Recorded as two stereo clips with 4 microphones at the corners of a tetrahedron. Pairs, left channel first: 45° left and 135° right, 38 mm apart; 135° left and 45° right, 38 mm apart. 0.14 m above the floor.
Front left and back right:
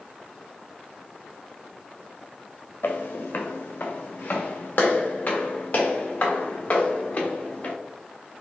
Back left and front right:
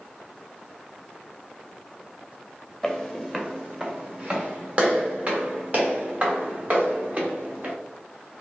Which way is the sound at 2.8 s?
45° left.